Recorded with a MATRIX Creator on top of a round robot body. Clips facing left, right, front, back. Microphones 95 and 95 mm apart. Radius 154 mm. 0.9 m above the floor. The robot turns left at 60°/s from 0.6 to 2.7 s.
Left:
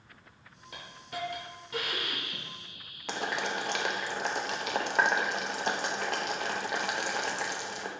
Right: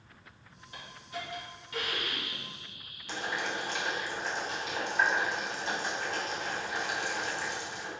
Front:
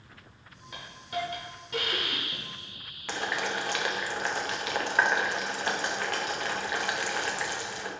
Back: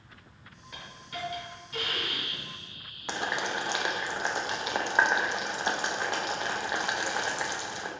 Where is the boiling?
110° left, 0.5 m.